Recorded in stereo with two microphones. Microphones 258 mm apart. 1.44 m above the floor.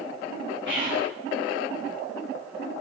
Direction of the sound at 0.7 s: 45° right (ahead or behind).